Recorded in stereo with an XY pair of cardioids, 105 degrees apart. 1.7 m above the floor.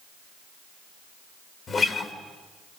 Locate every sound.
1.7 s a guitar: 40° left, 3 m